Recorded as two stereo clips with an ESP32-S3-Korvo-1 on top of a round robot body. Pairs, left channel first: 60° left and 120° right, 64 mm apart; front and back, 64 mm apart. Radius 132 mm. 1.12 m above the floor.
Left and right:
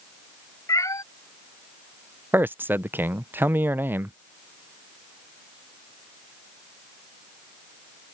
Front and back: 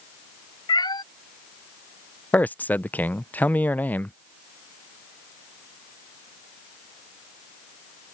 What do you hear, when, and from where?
0.7 s a cat meowing: 15° left
2.3 s a man speaking: 65° right